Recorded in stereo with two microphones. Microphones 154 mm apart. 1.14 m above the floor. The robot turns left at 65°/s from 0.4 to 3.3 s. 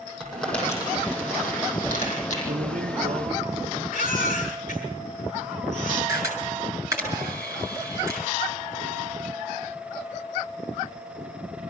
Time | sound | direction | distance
0.2 | crumpling | centre (ahead or behind) | 9.5 m
2.5 | a man speaking | 75° right | 1.0 m
3.9 | a baby crying | 60° left (ahead or behind) | 7.5 m
6.1 | a camera shutter | 20° right (ahead or behind) | 7 m